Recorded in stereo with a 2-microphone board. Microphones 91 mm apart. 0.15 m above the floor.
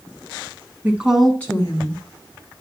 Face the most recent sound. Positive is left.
turn(degrees=45)  # may be behind; listen again after turning